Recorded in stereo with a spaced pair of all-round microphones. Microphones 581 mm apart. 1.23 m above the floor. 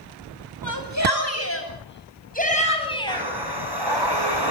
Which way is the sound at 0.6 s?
30° left (ahead or behind).